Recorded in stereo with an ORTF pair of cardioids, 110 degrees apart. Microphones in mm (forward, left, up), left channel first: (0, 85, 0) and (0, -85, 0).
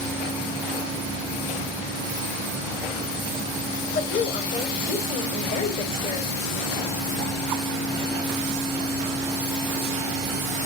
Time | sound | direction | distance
4.0 | a woman speaking | 55° left | 3.5 m